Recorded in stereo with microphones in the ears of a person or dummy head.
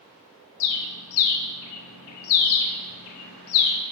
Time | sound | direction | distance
0.6 | a bird | 80° left | 0.6 m